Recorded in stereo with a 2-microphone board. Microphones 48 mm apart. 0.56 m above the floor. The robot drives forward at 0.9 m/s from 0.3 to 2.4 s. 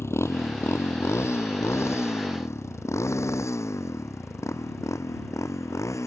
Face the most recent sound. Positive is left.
turn(degrees=80)